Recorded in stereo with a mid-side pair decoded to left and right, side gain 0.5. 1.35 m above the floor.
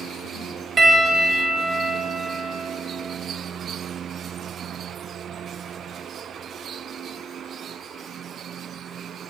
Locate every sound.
0.8 s a piano: 40° right, 2 m